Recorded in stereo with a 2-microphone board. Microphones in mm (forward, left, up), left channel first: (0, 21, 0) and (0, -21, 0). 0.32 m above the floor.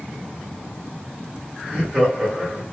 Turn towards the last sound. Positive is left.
turn(degrees=-20)  # may be behind; listen again after turning